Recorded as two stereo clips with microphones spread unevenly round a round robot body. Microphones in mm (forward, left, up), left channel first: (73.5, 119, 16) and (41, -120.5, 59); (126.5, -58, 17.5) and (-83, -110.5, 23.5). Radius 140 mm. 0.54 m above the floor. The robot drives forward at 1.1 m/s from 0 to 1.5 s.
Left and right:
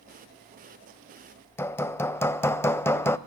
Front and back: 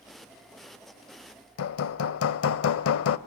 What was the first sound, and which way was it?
Hammering, straight ahead.